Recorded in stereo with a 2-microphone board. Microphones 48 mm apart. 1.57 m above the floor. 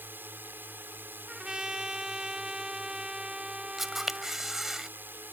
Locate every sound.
0.0 s a drone: 45° right (ahead or behind)
1.3 s a trumpet: 15° right (ahead or behind)
3.8 s a camera shutter: 10° right (ahead or behind)